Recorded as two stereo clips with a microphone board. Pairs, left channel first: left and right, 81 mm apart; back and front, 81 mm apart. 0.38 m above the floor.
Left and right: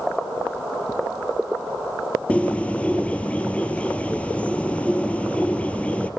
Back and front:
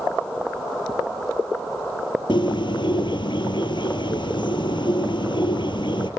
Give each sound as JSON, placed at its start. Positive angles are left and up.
{"t": 2.3, "sound": "a bird", "azimuth_deg": 165, "distance_m": 1.7}